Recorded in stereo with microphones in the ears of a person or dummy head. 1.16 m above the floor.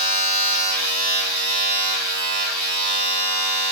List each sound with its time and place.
0.0 s a machine running: 60° right (ahead or behind), 1.5 m